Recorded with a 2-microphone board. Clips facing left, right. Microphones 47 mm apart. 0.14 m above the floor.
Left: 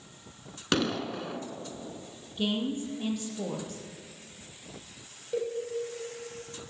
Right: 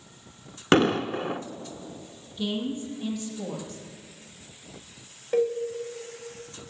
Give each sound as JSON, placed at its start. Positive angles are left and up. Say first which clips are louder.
{"t": 0.7, "sound": "an explosion", "louder": "right 8 dB", "side_deg": -35, "distance_m": 0.7}
{"t": 2.4, "sound": "a woman speaking", "louder": "even", "side_deg": 35, "distance_m": 4.5}
{"t": 5.3, "sound": "a cowbell", "louder": "right 8 dB", "side_deg": -45, "distance_m": 2.5}